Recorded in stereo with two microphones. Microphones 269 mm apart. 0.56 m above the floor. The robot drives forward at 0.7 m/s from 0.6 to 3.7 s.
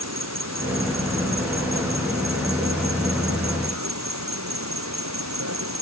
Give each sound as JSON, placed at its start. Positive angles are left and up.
{"t": 0.0, "sound": "an insect", "side_deg": -75}